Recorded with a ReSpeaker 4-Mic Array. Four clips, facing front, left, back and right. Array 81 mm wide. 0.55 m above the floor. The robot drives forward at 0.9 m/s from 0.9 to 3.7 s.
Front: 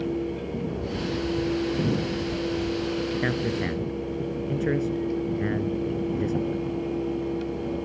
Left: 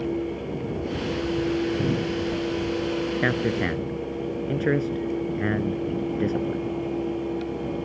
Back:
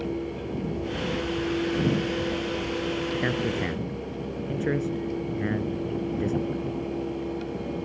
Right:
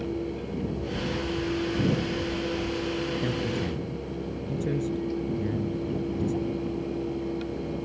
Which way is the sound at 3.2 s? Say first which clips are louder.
Left 5 dB, front 1 dB; 90° left.